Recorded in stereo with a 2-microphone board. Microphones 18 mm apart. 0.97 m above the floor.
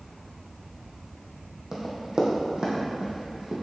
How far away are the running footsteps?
About 2.5 m.